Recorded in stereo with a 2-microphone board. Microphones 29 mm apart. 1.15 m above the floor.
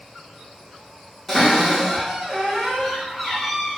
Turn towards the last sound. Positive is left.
turn(degrees=20)  # may be behind; listen again after turning